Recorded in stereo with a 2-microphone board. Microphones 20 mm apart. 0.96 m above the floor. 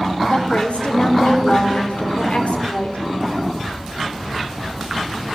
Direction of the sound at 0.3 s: 75° left (ahead or behind).